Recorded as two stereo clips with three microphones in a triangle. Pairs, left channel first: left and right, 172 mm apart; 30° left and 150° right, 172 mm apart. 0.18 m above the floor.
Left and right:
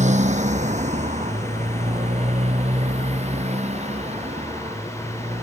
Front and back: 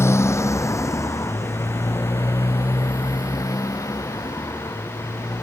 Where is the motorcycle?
45° right; by 5.4 s 40° right.